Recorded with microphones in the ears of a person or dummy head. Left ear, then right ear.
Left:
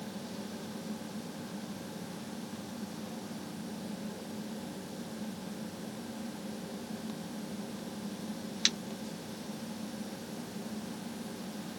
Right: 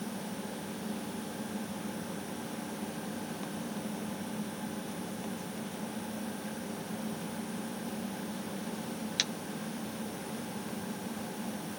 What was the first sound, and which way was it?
Only background noise.